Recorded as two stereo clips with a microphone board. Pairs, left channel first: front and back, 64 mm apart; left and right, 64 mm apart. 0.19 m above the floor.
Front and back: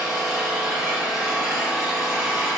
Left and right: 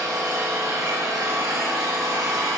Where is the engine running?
95° right, 4 m.